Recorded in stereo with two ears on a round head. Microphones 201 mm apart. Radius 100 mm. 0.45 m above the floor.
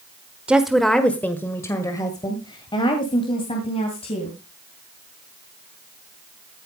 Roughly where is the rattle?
No rattle in this recording.